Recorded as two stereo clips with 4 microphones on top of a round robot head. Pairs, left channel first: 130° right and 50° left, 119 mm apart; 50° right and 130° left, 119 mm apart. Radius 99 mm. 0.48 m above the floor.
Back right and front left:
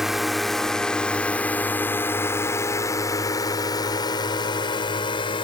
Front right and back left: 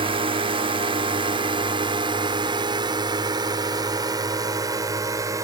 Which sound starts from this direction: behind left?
A drone, at 0.0 s.